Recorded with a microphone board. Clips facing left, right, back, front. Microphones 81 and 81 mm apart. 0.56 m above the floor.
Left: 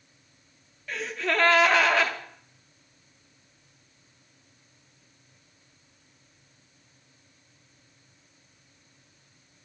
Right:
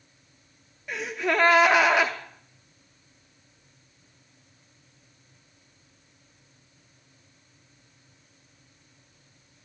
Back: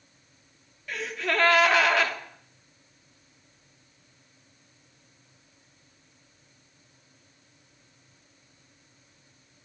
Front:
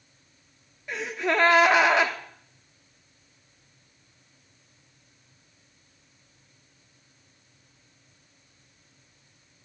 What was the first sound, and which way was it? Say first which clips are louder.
A gasp: right 2 dB, front 3 dB; 40° right.